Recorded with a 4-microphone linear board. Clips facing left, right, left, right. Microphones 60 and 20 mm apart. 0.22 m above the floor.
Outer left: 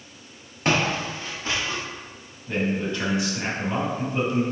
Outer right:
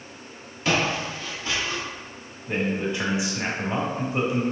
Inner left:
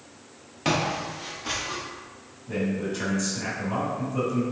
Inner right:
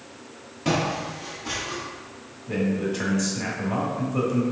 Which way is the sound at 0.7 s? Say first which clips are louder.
Outer left 1 dB, inner right 1 dB; 50° left (ahead or behind).